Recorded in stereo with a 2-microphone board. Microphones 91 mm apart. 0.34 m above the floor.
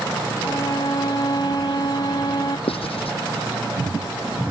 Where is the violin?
50° left (ahead or behind).